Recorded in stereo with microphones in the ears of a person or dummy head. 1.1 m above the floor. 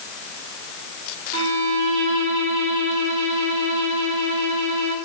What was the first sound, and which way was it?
A violin, 70° right (ahead or behind).